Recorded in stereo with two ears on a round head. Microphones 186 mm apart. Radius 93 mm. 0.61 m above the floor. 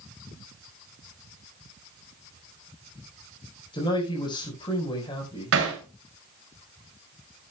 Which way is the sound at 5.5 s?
75° right (ahead or behind).